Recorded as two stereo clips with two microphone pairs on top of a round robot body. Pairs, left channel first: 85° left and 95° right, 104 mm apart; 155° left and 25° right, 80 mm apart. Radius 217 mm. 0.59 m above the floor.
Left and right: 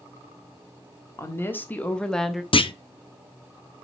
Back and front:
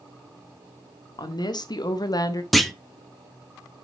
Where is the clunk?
70° left, 1.2 m.